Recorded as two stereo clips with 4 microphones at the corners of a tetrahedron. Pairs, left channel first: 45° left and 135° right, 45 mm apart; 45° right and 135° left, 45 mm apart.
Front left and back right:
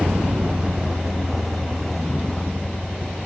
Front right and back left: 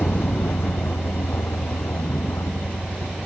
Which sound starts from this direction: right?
A vehicle, at 0.0 s.